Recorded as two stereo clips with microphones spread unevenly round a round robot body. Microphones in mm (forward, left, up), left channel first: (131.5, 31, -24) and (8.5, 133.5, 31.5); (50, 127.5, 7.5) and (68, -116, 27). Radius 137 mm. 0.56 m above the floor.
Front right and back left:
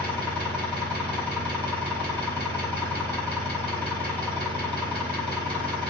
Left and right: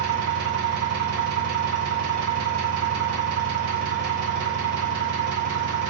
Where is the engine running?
110° right, 1.5 m.